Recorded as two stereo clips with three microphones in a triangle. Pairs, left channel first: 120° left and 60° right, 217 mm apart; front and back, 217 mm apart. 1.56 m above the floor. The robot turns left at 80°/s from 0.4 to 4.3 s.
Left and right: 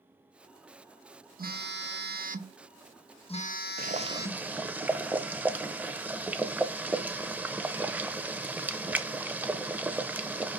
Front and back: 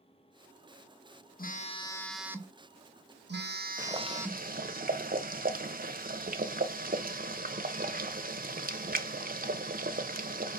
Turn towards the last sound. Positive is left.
turn(degrees=-140)